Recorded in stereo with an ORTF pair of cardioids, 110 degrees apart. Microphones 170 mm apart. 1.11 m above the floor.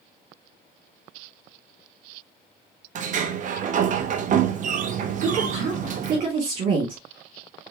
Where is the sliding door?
45° right, 0.9 m.